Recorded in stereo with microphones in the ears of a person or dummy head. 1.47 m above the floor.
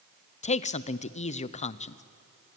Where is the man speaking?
35° left (ahead or behind), 0.6 m.